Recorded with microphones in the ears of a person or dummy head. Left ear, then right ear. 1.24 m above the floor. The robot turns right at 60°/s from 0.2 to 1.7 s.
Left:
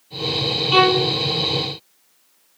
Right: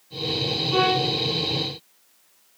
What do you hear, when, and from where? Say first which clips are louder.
0.7 s a violin: left 6 dB; 65° left (ahead or behind), 6 m; by 1.1 s 80° left, 6 m